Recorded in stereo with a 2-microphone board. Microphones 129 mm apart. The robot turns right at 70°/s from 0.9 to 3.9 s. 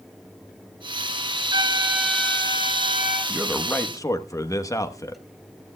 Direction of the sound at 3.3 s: 15° right.